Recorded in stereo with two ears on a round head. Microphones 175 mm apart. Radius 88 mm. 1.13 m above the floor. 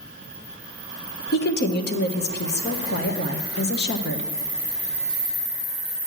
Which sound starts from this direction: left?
A woman speaking, at 1.3 s.